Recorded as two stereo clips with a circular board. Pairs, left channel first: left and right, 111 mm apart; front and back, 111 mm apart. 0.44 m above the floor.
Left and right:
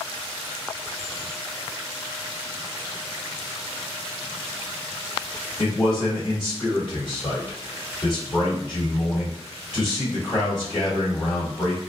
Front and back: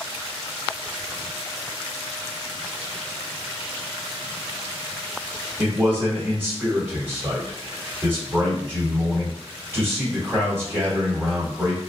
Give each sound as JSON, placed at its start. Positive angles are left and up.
{"t": 5.6, "sound": "a man speaking", "azimuth_deg": 115, "distance_m": 1.4}